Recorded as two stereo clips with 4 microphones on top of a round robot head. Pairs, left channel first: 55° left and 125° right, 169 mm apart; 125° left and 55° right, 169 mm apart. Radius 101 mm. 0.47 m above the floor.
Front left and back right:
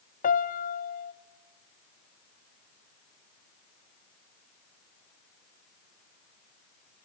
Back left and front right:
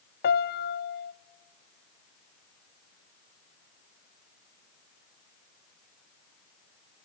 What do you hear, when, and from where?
0.2 s a piano: 95° left, 0.7 m